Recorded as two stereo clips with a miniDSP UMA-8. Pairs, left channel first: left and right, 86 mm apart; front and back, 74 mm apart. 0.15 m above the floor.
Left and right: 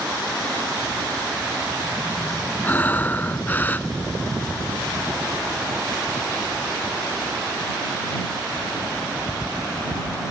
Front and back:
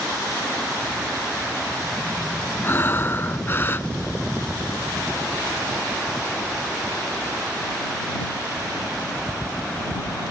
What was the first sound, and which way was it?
Breathing, 35° left.